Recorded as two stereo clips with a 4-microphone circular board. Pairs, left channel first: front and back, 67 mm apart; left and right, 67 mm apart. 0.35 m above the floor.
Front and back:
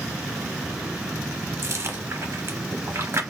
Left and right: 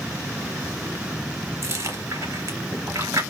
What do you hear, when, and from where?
1.6 s chewing: 130° right, 0.6 m